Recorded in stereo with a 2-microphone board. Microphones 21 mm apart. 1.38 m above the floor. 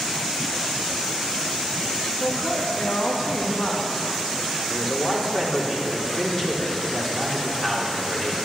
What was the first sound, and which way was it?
A man speaking, 60° left (ahead or behind).